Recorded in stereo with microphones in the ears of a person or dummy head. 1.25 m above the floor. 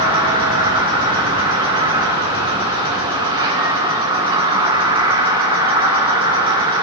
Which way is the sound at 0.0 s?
10° right (ahead or behind).